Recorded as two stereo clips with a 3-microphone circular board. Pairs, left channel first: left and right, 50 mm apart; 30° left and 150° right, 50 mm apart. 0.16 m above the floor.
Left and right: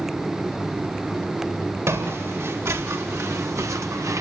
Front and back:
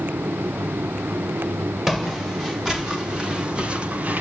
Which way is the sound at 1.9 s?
65° right.